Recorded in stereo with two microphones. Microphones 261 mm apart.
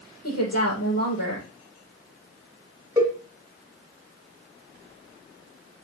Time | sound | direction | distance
0.2 | a woman speaking | 70° left (ahead or behind) | 5.5 m
3.0 | a cowbell | 15° right (ahead or behind) | 1.9 m